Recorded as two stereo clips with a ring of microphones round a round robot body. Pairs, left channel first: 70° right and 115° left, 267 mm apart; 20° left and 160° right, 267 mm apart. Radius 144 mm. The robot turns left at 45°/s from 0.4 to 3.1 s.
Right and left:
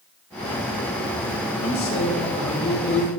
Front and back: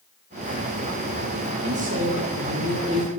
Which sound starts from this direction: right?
A man speaking, at 1.6 s.